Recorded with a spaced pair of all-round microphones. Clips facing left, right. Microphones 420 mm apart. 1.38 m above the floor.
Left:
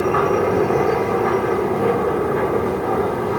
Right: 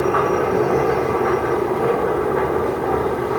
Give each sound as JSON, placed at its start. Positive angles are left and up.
{"t": 0.0, "sound": "a machine running", "side_deg": 40, "distance_m": 1.4}